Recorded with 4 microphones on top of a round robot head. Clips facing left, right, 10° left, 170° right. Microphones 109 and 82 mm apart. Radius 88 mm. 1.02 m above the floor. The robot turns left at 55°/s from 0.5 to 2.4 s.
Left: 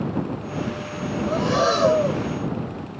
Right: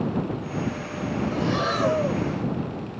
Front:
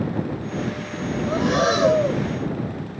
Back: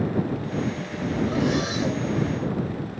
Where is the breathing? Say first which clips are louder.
Left 7 dB, front 8 dB; 60° left; by 2.2 s 5° left.